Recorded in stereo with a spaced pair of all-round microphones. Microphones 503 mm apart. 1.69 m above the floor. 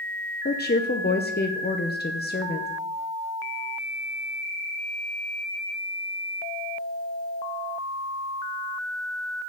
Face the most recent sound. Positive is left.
turn(degrees=20)  # may be behind; listen again after turning